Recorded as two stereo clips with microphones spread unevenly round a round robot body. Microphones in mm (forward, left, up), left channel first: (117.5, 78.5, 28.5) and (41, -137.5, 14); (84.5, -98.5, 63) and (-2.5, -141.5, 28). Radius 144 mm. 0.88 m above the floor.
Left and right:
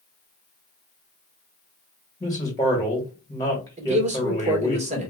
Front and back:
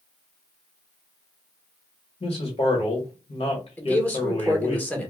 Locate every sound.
2.2 s a man speaking: 5° right, 1.5 m
3.8 s a man speaking: 60° right, 1.3 m